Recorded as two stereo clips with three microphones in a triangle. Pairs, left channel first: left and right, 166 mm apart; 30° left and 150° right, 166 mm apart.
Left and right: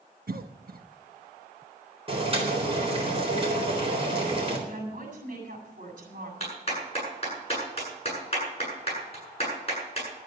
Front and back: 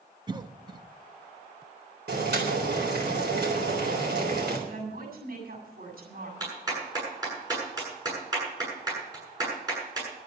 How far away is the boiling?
About 3.5 m.